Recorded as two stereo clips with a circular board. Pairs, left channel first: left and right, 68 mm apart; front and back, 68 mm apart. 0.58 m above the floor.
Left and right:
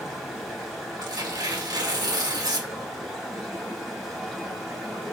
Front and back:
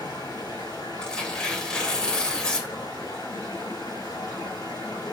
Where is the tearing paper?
75° right, 1.9 m.